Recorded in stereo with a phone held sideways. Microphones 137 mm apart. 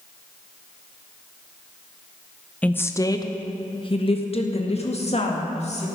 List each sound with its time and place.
2.6 s a woman speaking: 10° left (ahead or behind), 0.7 m; by 5.9 s 55° left (ahead or behind), 2.5 m